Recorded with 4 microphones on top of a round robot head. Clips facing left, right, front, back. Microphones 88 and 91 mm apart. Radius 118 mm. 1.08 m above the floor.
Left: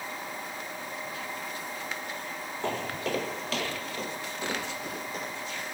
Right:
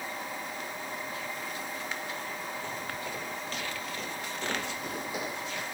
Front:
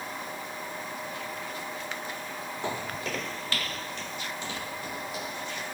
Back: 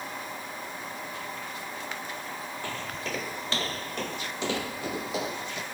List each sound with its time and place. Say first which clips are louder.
2.6 s footsteps: left 5 dB, front 4 dB; 70° left; by 5.6 s 170° right